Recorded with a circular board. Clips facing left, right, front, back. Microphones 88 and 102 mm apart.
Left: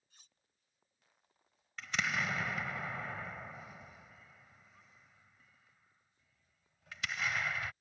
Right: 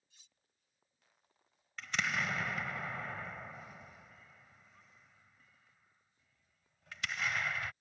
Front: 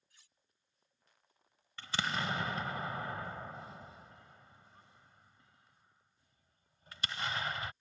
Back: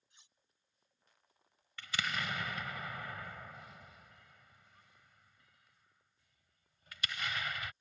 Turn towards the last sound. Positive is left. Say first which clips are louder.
# even, front 3 dB
turn(degrees=0)